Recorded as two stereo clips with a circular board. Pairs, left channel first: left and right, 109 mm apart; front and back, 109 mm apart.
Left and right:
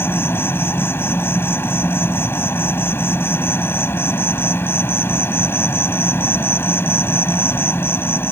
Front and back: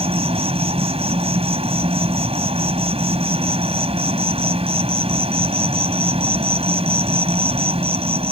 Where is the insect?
160° left.